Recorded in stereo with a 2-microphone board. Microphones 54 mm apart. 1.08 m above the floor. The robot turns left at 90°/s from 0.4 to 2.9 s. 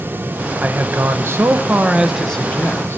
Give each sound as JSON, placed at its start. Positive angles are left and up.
{"t": 0.6, "sound": "a man speaking", "azimuth_deg": -40, "distance_m": 0.9}